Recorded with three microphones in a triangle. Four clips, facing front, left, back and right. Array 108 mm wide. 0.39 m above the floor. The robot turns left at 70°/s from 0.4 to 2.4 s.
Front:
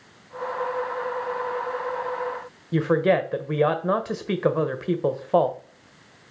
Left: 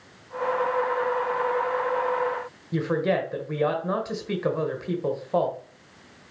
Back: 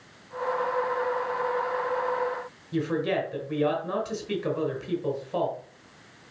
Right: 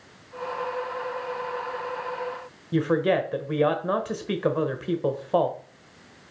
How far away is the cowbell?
No cowbell in this recording.